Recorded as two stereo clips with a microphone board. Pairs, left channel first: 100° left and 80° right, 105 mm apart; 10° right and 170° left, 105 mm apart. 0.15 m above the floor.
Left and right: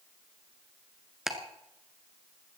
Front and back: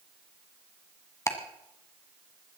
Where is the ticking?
Straight ahead, 1.5 m.